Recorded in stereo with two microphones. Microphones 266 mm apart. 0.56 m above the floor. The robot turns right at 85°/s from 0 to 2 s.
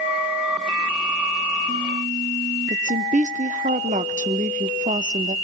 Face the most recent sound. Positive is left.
turn(degrees=-30)  # may be behind; listen again after turning